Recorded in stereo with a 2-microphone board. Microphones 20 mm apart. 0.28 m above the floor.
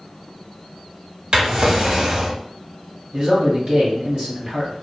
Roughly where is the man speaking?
Right.